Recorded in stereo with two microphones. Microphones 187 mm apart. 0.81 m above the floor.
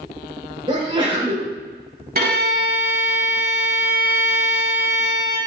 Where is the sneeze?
25° right (ahead or behind), 2.5 m.